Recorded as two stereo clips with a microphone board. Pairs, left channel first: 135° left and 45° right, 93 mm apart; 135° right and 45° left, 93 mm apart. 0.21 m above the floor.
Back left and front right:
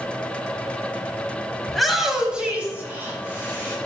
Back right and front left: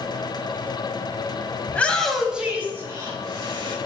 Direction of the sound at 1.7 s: 140° right.